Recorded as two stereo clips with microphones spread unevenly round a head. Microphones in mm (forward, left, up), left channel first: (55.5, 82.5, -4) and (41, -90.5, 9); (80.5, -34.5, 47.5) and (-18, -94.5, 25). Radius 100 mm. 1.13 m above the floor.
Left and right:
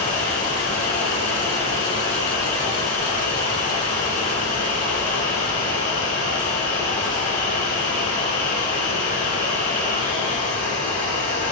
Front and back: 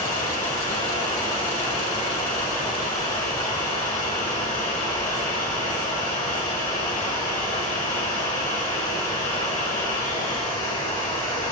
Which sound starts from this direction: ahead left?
Running water, at 0.0 s.